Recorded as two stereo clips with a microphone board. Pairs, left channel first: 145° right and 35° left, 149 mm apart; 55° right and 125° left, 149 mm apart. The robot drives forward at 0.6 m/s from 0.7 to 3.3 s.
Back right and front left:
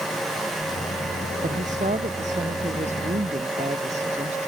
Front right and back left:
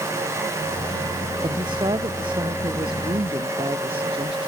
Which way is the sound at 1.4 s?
65° left.